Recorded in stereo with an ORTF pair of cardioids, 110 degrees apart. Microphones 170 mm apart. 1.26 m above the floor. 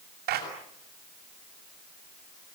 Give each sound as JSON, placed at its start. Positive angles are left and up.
{"t": 0.3, "sound": "a clap", "azimuth_deg": -65, "distance_m": 7.5}